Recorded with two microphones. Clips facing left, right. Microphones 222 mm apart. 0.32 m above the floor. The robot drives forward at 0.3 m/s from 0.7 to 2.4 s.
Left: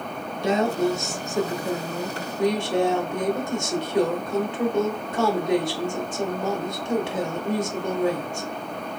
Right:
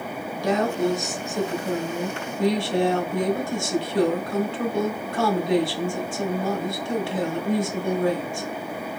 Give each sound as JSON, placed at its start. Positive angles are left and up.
{"t": 0.4, "sound": "a woman speaking", "side_deg": 25, "distance_m": 0.9}